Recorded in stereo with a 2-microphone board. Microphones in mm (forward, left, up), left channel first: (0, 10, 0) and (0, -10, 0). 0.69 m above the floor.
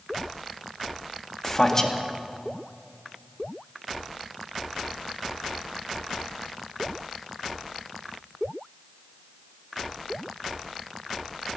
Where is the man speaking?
25° left (ahead or behind), 1.2 m.